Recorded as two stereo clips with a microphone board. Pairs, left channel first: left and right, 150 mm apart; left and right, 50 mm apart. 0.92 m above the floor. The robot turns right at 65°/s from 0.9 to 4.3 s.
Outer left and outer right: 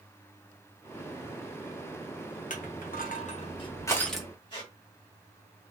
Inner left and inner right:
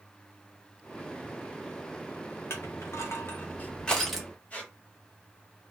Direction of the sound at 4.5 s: 35° left (ahead or behind).